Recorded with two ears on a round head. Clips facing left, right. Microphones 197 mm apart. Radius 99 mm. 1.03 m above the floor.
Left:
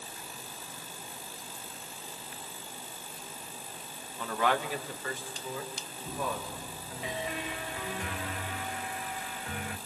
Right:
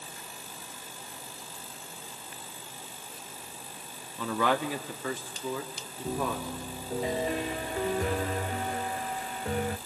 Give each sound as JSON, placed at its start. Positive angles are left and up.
{"t": 4.2, "sound": "a man speaking", "side_deg": -80, "distance_m": 1.4}
{"t": 6.0, "sound": "a piano", "side_deg": -35, "distance_m": 0.8}